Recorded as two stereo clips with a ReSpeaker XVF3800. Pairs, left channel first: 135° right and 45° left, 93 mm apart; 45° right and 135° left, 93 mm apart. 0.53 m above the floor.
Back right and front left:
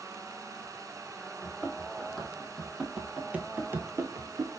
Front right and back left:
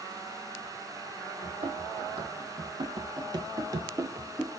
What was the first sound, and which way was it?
Running footsteps, 145° left.